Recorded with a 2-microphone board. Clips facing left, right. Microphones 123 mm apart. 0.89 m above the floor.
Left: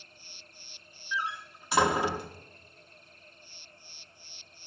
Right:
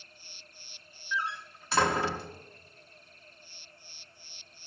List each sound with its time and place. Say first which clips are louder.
1.1 s a door slam: even; 15° left (ahead or behind), 0.6 m